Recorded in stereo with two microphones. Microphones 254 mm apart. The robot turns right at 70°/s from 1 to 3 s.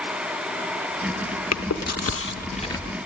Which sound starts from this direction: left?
Chewing, at 1.5 s.